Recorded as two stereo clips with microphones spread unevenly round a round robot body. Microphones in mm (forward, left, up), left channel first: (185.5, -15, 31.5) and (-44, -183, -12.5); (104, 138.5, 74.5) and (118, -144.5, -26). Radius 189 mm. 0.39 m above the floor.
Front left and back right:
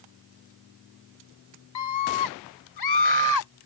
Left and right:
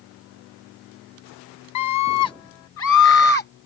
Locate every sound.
1.8 s a scream: 70° left; by 3.5 s 30° left